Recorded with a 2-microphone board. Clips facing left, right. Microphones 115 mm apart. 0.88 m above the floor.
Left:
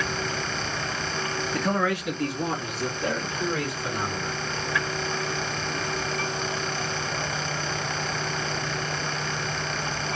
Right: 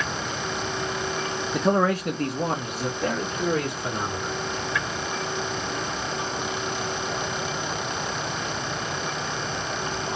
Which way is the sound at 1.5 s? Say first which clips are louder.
Right 5 dB; 15° right (ahead or behind).